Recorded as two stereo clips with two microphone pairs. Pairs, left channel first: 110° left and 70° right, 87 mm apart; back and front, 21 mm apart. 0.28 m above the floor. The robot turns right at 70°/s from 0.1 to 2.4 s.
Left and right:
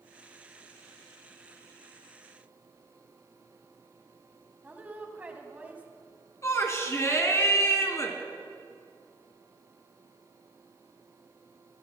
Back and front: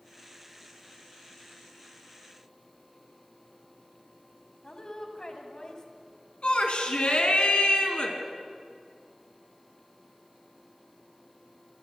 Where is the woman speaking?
135° right, 1.9 m.